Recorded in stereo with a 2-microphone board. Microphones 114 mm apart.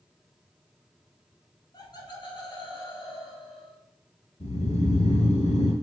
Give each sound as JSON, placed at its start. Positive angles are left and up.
{"t": 1.7, "sound": "laughter", "side_deg": 35, "distance_m": 1.5}
{"t": 4.4, "sound": "snoring", "side_deg": 75, "distance_m": 0.8}